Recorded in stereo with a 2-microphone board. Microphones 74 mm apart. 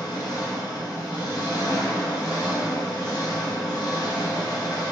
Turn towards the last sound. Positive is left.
turn(degrees=55)  # may be behind; listen again after turning